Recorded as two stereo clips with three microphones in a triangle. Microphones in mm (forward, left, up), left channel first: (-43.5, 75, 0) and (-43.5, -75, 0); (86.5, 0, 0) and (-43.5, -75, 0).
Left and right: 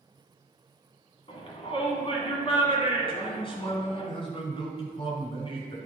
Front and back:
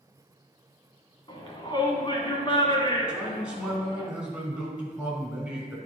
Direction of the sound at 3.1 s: 130° left.